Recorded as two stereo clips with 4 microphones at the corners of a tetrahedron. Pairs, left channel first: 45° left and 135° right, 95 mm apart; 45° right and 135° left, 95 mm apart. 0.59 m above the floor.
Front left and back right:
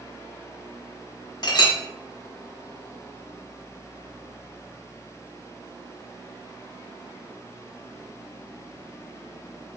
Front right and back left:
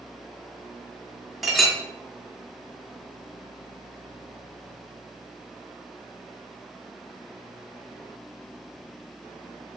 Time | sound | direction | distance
1.4 | a clink | 45° left | 0.7 m